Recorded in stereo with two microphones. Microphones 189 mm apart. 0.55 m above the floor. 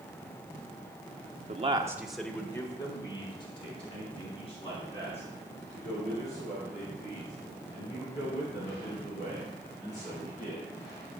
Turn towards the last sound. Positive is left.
turn(degrees=40)  # may be behind; listen again after turning